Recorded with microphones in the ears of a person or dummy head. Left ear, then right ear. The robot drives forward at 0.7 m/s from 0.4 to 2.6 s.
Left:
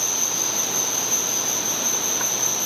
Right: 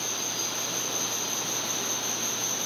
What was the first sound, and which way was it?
An insect, 65° left (ahead or behind).